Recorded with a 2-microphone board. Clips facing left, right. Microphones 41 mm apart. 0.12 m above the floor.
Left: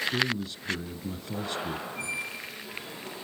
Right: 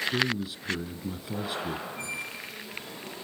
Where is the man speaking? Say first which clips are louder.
Right 1 dB; 10° right (ahead or behind), 1.2 m.